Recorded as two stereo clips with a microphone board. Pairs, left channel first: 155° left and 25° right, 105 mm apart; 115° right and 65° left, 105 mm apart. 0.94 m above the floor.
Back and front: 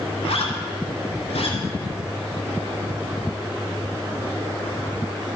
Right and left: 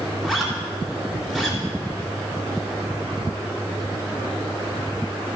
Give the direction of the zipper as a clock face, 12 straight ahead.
7 o'clock.